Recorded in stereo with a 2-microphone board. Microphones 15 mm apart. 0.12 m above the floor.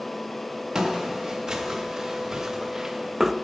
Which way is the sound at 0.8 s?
40° right (ahead or behind).